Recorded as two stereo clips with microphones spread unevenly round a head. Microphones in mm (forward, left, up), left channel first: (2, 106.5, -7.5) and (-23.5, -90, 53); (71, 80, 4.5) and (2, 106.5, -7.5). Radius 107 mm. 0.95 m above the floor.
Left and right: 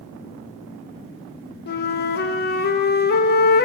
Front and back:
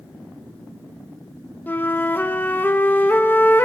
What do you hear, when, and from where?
1.7 s a flute: 50° left, 0.6 m